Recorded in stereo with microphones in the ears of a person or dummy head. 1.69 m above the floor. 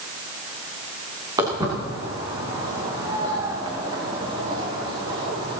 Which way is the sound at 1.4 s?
20° right (ahead or behind).